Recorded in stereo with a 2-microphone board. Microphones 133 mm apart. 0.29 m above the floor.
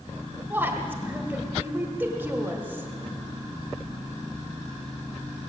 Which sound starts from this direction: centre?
A woman speaking, at 0.5 s.